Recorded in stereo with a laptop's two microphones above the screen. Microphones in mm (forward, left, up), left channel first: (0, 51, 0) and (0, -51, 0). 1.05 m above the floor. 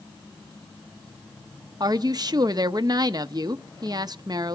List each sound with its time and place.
1.8 s a woman speaking: 45° right (ahead or behind), 0.9 m